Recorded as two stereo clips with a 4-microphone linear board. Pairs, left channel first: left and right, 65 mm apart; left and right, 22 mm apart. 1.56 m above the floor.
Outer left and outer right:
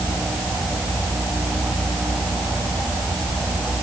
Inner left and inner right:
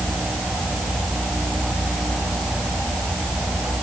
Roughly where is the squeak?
No squeak in this recording.